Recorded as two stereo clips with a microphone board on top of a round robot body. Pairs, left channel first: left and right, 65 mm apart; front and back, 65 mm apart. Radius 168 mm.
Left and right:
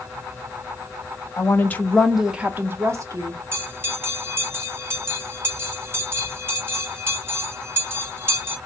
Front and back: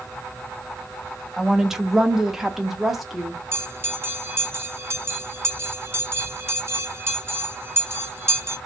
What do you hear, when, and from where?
1.4 s a woman speaking: 100° left, 1.0 m; by 3.4 s 95° right, 1.3 m
3.5 s a bell: 140° right, 1.9 m